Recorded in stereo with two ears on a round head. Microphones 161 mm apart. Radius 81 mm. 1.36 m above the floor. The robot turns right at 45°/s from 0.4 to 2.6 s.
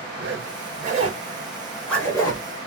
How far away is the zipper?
About 1.1 m.